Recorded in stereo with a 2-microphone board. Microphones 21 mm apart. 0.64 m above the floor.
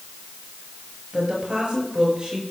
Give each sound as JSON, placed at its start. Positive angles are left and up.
{"t": 1.1, "sound": "a woman speaking", "side_deg": -55, "distance_m": 4.5}